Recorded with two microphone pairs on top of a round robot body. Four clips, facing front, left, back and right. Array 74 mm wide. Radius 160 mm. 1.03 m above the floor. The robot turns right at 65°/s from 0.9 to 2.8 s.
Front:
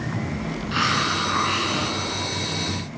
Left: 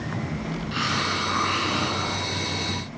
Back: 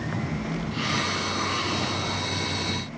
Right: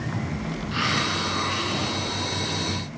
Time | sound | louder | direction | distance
0.7 | a hiss | right 1 dB, front 7 dB | 10° right | 9.5 m